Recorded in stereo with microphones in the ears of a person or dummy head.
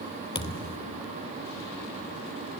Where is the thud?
25° left (ahead or behind), 3 m.